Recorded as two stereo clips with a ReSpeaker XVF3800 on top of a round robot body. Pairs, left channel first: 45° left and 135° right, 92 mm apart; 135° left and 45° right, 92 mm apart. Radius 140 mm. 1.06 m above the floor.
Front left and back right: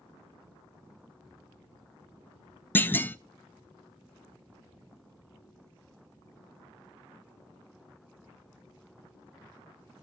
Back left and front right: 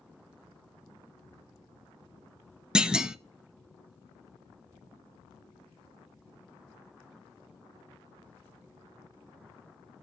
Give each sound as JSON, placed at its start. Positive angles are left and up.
{"t": 2.8, "sound": "a clunk", "azimuth_deg": 25, "distance_m": 0.6}